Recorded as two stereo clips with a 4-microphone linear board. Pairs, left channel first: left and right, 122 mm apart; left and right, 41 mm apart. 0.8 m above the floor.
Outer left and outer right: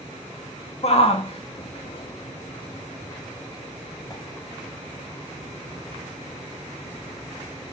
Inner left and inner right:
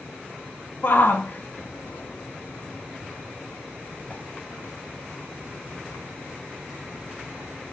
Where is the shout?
50° left (ahead or behind), 1.6 m; by 4.2 s 30° left (ahead or behind), 3.5 m.